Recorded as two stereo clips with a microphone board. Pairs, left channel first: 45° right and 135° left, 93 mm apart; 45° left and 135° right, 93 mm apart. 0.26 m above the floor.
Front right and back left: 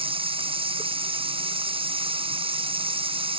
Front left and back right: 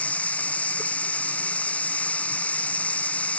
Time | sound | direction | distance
0.0 | running water | 120° left | ?